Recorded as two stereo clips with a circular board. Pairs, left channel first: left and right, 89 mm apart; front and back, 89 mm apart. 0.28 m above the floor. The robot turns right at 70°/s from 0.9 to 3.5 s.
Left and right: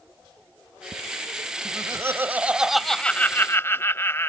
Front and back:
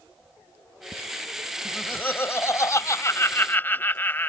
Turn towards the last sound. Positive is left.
turn(degrees=50)